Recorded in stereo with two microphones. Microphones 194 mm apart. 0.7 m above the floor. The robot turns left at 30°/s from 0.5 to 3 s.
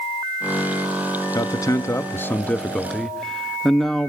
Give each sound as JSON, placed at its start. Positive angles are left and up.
{"t": 1.4, "sound": "a man speaking", "side_deg": 20, "distance_m": 1.0}